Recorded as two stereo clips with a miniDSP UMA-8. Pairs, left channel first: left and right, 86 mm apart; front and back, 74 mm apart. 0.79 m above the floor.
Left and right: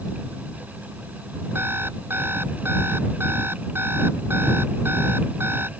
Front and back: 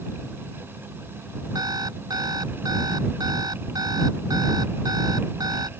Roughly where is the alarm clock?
Behind right.